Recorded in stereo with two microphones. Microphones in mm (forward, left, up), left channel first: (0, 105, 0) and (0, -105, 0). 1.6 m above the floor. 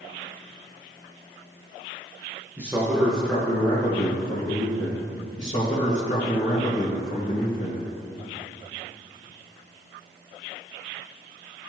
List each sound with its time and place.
2.6 s a man speaking: 10° right (ahead or behind), 1.5 m; by 5.1 s 35° left (ahead or behind), 2 m
5.4 s a man speaking: 35° left (ahead or behind), 1.8 m